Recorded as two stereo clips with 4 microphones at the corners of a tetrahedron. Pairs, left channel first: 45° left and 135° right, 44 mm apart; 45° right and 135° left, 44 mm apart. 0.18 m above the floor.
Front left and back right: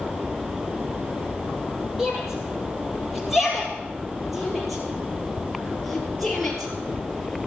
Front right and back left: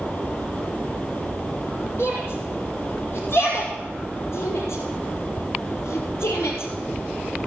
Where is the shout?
55° right, 6.5 m; by 7.5 s 35° right, 4.5 m.